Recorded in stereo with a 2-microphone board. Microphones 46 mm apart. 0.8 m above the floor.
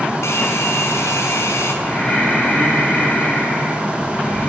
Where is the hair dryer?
75° left (ahead or behind), 6 m.